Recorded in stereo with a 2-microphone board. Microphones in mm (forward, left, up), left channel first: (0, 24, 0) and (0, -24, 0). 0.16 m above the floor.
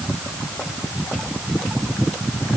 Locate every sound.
Only background noise.